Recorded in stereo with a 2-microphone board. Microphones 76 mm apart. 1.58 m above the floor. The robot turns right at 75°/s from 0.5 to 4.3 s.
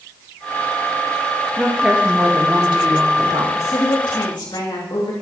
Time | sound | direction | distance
1.6 | a woman speaking | 170° left | 2.5 m
3.5 | a woman speaking | 40° left | 2.5 m